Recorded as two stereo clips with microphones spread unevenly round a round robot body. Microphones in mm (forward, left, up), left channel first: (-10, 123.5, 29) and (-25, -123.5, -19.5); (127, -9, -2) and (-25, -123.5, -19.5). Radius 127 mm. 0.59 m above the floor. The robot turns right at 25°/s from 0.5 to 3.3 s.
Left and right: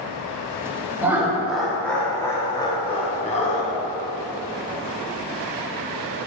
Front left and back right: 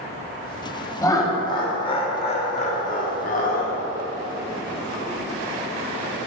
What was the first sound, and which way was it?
Laughter, 35° right.